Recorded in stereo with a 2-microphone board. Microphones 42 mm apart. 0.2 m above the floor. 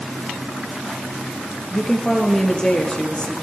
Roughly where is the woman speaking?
Centre.